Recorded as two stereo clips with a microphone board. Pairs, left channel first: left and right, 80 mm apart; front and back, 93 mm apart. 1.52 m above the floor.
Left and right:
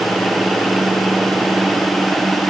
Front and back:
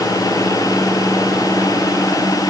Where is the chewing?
I don't hear chewing.